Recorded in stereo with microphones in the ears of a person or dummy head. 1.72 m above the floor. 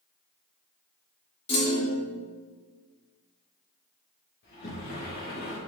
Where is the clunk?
35° left (ahead or behind), 2.5 m.